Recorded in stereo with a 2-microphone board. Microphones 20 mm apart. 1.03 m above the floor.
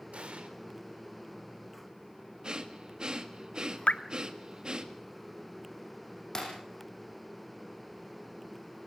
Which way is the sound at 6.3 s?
30° left (ahead or behind).